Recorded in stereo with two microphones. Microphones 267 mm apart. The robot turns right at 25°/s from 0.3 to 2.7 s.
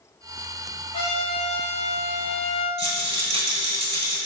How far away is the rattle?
About 0.9 m.